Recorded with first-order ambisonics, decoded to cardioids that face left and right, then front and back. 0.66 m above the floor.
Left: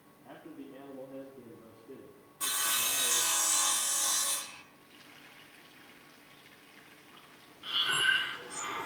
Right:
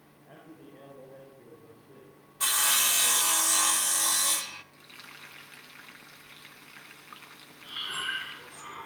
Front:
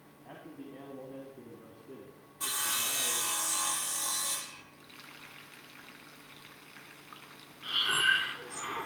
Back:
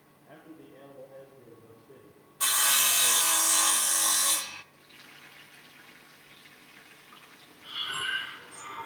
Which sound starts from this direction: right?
Frying, at 4.7 s.